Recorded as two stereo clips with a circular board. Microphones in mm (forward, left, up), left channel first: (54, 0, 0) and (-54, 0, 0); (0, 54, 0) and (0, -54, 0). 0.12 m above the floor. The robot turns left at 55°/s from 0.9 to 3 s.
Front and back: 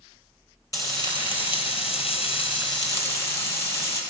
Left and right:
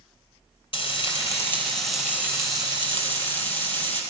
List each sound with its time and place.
0.7 s frying: 55° left, 3 m; by 4.0 s 60° right, 3 m